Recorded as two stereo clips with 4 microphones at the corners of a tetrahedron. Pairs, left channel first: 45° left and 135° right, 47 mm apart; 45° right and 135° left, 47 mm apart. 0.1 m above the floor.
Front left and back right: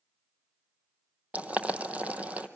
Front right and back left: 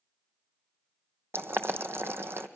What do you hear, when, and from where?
1.3 s boiling: 165° left, 0.9 m